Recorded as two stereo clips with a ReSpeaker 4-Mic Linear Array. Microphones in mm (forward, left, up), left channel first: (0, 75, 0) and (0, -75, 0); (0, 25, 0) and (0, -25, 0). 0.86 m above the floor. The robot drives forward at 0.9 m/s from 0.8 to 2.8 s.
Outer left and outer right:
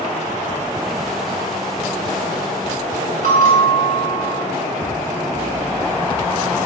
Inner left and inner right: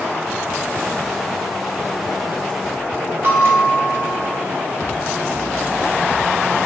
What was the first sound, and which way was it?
A bell, 60° right (ahead or behind).